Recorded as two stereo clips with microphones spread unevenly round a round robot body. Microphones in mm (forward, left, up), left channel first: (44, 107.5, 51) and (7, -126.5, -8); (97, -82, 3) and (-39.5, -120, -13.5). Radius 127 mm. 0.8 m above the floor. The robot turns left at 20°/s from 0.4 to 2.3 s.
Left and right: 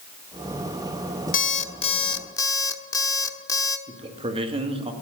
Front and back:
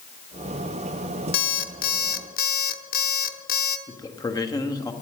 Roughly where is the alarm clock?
Ahead left.